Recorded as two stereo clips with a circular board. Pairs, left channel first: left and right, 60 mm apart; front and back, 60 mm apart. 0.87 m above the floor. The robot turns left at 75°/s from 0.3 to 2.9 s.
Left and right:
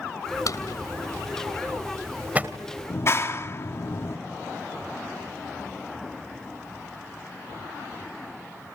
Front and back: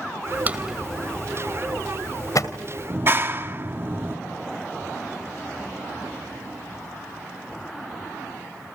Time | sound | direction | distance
0.5 | a drawer | 120° left | 2.0 m
2.9 | a clap | 130° left | 1.8 m